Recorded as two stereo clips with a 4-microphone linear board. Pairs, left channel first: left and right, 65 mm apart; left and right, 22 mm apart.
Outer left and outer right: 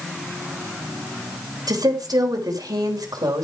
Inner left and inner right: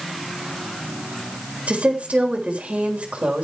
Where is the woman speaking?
85° right, 3.5 m.